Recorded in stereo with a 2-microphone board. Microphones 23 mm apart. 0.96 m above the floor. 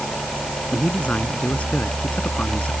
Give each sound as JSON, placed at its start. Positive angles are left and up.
{"t": 0.7, "sound": "a man speaking", "side_deg": 85}